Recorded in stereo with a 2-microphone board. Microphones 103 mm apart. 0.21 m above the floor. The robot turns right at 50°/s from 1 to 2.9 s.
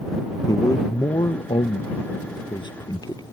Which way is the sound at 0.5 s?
45° left.